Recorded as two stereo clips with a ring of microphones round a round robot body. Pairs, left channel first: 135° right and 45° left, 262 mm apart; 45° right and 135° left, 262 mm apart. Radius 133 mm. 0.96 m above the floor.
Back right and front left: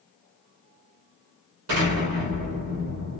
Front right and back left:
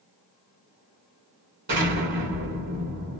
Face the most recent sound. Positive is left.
turn(degrees=80)